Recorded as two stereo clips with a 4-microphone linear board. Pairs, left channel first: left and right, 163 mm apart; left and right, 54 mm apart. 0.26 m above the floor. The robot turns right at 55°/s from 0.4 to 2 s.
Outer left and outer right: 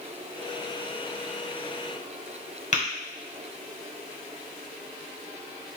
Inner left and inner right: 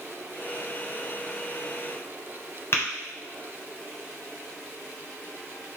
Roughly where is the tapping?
Left.